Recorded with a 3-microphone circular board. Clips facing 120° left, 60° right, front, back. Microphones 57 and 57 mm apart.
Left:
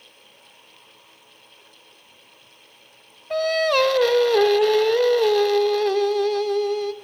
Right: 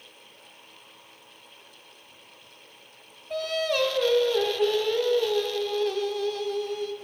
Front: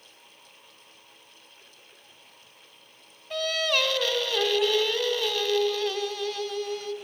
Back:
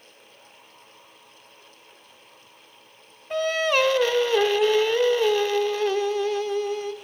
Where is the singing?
120° left, 0.8 m.